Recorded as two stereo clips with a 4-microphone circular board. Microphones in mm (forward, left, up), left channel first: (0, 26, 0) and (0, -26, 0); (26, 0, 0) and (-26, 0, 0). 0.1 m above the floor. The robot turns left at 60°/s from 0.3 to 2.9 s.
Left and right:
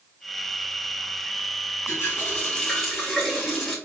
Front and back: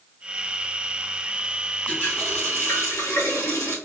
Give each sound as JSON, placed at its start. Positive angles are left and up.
{"t": 1.9, "sound": "a running tap", "azimuth_deg": 65, "distance_m": 2.0}